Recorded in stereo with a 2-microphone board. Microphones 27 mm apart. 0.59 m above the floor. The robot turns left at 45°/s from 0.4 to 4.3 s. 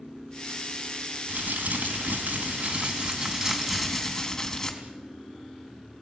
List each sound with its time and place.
1.3 s crumpling: 60° right, 4.5 m; by 4.7 s 165° left, 4.5 m